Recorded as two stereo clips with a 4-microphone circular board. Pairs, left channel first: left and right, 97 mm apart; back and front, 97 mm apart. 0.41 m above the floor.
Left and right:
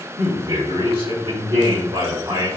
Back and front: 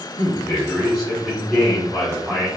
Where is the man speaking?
90° right, 2.5 m.